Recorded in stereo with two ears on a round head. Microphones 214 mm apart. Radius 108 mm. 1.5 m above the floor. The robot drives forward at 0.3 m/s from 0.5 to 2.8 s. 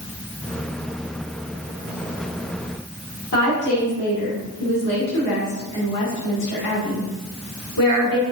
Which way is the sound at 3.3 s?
85° left.